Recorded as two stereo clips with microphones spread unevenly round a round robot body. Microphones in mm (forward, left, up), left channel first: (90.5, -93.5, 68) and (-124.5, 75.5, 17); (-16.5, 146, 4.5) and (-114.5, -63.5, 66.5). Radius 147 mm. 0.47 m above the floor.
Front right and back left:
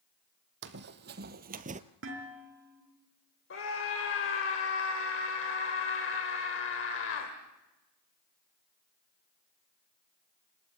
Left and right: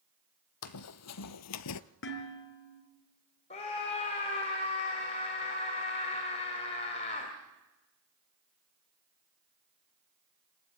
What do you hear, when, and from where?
0.6 s running footsteps: 85° left, 1.4 m; by 1.8 s 70° left, 0.7 m
2.0 s dishes clattering: 95° left, 4 m
3.5 s a scream: 10° left, 1.9 m